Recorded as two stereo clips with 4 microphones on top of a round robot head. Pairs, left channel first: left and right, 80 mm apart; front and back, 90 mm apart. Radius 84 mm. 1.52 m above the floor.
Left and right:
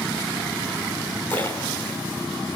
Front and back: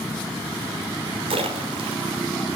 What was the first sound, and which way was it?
A splash, 165° left.